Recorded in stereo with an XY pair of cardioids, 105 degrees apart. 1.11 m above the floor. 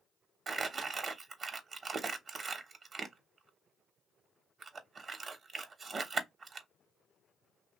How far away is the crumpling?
About 0.9 m.